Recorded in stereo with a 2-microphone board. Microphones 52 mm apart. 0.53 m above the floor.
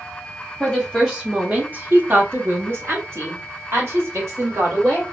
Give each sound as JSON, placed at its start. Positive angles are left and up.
{"t": 0.6, "sound": "a woman speaking", "side_deg": 0, "distance_m": 0.9}